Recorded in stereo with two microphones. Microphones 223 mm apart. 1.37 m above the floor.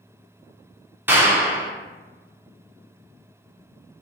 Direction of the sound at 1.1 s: 10° right (ahead or behind).